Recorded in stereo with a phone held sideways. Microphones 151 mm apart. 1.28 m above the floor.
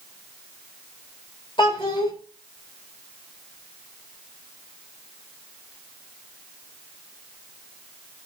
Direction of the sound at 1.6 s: 35° left (ahead or behind).